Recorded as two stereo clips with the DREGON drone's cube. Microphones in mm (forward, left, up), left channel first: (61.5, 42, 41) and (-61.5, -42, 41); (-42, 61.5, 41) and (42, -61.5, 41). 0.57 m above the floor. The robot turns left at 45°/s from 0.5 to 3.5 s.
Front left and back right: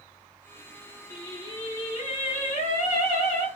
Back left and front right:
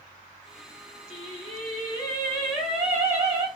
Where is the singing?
100° left, 1.0 m; by 3.5 s 5° right, 1.0 m.